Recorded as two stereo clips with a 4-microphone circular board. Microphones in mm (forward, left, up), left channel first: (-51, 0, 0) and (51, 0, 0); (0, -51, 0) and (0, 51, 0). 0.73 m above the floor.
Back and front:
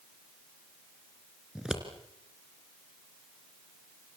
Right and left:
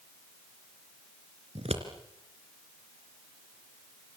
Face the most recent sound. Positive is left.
turn(degrees=85)